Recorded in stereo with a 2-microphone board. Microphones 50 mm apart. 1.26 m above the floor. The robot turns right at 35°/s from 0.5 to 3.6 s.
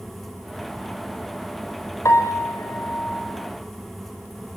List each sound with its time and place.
2.0 s a piano: 100° left, 4.5 m; by 3.4 s 150° left, 4.5 m